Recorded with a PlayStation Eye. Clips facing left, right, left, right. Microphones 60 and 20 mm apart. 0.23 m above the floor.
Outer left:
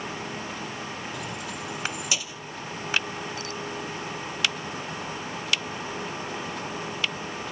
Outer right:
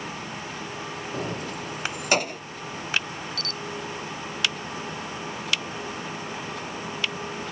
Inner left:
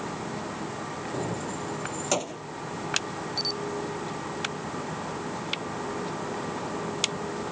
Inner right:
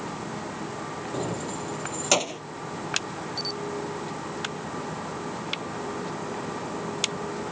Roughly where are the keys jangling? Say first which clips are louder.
Outer right 3 dB, inner right 1 dB; right.